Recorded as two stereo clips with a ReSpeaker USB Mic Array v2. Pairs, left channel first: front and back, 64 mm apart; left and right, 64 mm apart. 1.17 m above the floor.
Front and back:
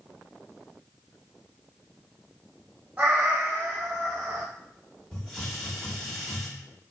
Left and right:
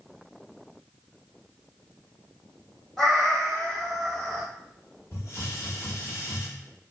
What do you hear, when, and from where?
3.0 s a cat meowing: 170° left, 1.0 m
5.1 s a hiss: 80° left, 1.3 m